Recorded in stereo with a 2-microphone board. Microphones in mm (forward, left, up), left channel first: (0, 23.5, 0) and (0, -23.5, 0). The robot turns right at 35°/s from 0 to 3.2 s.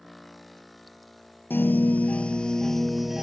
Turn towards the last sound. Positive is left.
turn(degrees=-170)